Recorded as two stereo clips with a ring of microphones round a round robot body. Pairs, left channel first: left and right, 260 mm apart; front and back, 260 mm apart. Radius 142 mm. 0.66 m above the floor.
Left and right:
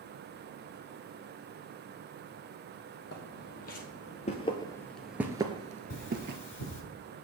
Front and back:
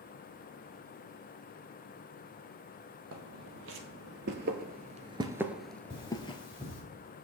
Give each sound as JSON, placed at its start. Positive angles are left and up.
{"t": 3.1, "sound": "footsteps", "azimuth_deg": 140, "distance_m": 1.4}
{"t": 5.9, "sound": "cutlery clinking", "azimuth_deg": 75, "distance_m": 1.9}